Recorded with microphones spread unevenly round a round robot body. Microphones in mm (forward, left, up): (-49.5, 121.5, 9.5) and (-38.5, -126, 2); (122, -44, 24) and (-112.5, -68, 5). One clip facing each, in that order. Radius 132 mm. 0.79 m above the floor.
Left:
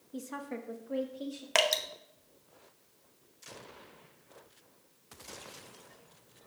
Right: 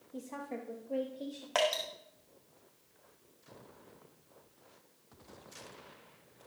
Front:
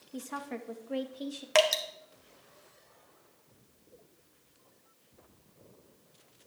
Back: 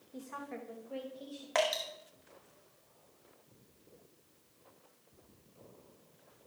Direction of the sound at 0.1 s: 35° left.